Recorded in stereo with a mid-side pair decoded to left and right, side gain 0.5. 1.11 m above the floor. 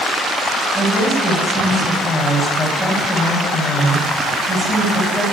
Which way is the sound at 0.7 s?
5° left.